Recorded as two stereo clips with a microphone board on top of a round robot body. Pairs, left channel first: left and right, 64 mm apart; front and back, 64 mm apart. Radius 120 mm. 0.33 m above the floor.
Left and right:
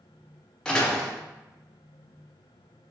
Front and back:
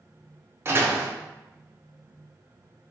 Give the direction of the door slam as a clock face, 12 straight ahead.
7 o'clock.